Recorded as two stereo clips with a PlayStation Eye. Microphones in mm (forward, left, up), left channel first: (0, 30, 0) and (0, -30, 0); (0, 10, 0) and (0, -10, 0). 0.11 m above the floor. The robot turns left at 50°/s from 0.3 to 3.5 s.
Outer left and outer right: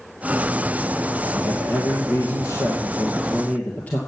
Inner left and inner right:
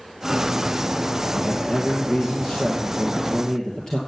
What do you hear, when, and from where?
1.3 s a man speaking: 135° left, 2 m; by 4.0 s 30° left, 2 m